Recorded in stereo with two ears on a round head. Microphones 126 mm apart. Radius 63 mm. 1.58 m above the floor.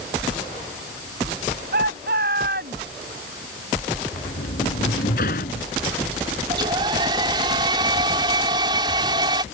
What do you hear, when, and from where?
1.7 s a shout: 70° right (ahead or behind)
4.1 s a sliding door: 65° left (ahead or behind)
6.5 s a hair dryer: 30° right (ahead or behind)